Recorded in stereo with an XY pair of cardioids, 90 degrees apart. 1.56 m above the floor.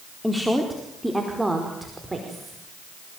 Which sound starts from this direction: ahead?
A woman speaking, at 0.2 s.